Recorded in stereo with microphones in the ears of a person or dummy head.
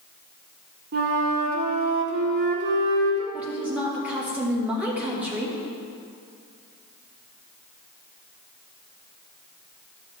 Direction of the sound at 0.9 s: 55° right (ahead or behind).